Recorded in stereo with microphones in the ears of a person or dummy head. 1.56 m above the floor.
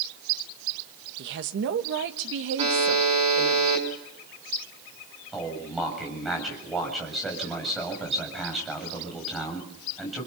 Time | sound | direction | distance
1.2 | a woman speaking | 60° right (ahead or behind) | 1.5 m
2.6 | a buzzer | 30° right (ahead or behind) | 5 m
5.3 | a man speaking | centre (ahead or behind) | 7.5 m